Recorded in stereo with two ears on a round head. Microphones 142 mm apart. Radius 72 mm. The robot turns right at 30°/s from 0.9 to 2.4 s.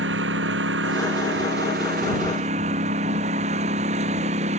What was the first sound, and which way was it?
A lawn mower, 90° right.